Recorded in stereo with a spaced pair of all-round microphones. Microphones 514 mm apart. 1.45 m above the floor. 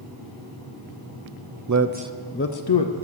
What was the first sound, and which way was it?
A man speaking, 40° right (ahead or behind).